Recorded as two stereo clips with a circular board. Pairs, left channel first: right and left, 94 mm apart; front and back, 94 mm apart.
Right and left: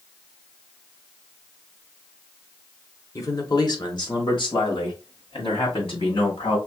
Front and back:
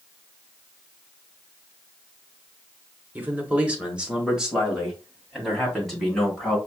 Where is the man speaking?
120° right, 1.1 m; by 6.6 s 85° right, 3 m.